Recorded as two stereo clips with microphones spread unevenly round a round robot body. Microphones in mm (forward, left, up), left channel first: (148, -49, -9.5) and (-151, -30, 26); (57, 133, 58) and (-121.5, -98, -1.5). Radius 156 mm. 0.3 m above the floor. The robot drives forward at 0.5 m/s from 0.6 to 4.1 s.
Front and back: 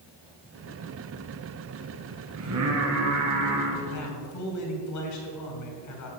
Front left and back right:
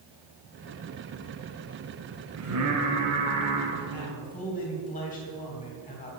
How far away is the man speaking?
About 4 m.